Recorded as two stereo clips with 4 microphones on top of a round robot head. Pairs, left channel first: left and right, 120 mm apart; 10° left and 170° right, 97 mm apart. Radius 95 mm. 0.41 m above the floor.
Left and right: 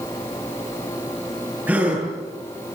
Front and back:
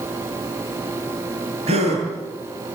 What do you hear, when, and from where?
1.7 s a gasp: 170° right, 9.5 m